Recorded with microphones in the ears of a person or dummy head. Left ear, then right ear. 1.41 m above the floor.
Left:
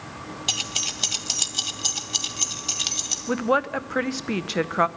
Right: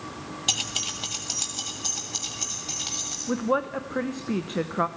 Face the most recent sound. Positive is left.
turn(degrees=40)  # may be behind; listen again after turning